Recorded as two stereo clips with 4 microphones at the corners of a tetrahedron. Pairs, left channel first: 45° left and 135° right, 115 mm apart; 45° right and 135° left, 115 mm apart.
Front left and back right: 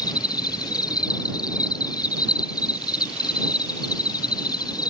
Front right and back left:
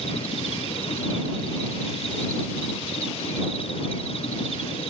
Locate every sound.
0.0 s an insect: 10° right